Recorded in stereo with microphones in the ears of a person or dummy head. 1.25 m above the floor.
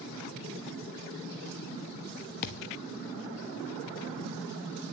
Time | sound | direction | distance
2.4 | a thud | 50° left (ahead or behind) | 0.8 m